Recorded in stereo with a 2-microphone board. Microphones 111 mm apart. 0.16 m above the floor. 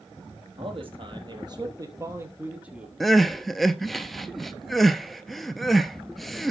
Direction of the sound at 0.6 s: 55° right (ahead or behind).